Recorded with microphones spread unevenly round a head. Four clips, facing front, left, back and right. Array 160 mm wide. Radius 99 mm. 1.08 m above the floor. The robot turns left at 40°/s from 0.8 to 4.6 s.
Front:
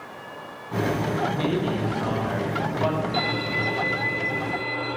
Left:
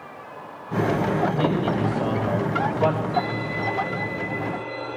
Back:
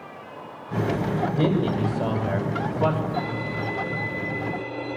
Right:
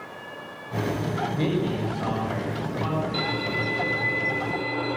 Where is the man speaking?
155° right, 5 m; by 3.0 s 135° left, 5 m.